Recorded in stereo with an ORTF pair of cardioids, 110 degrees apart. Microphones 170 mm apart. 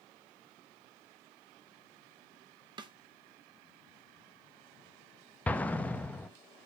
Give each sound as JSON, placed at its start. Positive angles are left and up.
{"t": 2.8, "sound": "a snare drum", "azimuth_deg": -30, "distance_m": 0.9}
{"t": 5.5, "sound": "an explosion", "azimuth_deg": 10, "distance_m": 0.7}